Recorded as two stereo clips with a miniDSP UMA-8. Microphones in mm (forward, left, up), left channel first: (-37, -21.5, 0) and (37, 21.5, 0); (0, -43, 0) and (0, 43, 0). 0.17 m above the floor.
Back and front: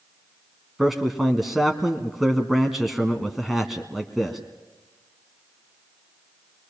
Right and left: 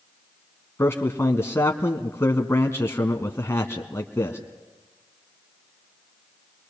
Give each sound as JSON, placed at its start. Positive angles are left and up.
{"t": 0.8, "sound": "a man speaking", "azimuth_deg": -55, "distance_m": 1.4}